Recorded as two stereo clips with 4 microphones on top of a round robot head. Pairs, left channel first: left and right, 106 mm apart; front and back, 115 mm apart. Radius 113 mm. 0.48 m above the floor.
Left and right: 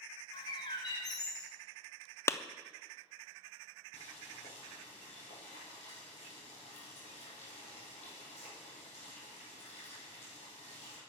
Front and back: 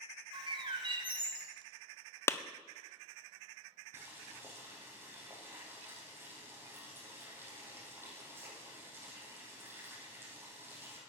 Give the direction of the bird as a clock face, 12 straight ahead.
7 o'clock.